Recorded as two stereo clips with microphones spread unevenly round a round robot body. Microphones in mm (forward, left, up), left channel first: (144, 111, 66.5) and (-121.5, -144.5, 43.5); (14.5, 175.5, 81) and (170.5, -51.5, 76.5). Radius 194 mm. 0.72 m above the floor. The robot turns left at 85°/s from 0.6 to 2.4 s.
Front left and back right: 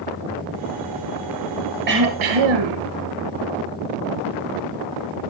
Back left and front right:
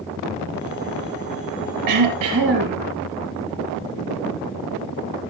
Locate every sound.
1.9 s throat clearing: 70° right, 3.5 m; by 2.8 s 115° right, 3.5 m